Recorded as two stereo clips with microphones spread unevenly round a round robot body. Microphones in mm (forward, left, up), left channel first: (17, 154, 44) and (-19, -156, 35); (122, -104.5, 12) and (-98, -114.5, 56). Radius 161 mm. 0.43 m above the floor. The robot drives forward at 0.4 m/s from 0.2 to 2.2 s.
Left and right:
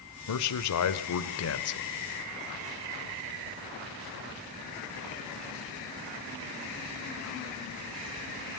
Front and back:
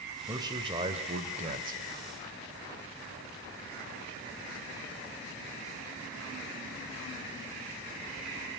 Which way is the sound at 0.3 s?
100° left.